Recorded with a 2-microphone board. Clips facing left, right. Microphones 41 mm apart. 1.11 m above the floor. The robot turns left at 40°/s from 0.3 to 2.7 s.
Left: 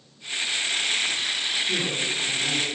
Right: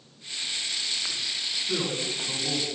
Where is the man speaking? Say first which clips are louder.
Left 3 dB; 20° left, 8.5 m; by 2.7 s 20° right, 8.5 m.